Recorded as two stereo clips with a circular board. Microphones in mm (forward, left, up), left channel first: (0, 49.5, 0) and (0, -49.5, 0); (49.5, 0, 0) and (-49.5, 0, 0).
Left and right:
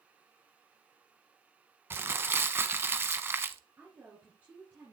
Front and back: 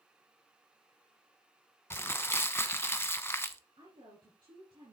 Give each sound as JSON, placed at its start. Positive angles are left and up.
{"t": 1.9, "sound": "crumpling", "azimuth_deg": -45, "distance_m": 0.9}
{"t": 3.8, "sound": "a woman speaking", "azimuth_deg": -155, "distance_m": 3.0}